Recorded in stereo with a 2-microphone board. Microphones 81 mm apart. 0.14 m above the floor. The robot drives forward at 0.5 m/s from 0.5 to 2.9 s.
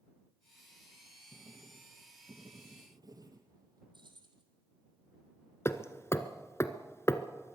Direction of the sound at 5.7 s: 35° left (ahead or behind).